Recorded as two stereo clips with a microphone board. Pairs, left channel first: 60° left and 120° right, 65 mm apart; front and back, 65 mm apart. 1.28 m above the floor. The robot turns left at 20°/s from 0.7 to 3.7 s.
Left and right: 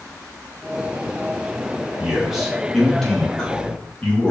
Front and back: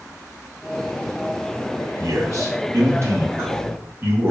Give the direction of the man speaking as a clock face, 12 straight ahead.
7 o'clock.